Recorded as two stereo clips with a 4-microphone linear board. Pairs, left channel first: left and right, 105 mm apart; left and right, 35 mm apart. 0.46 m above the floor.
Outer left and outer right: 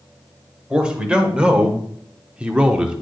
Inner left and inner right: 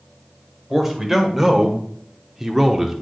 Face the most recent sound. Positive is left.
turn(degrees=-10)  # may be behind; listen again after turning